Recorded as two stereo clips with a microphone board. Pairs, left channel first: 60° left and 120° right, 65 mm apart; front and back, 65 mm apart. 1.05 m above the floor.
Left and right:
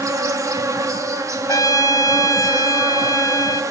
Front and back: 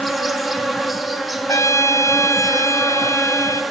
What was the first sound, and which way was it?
An insect, 90° right.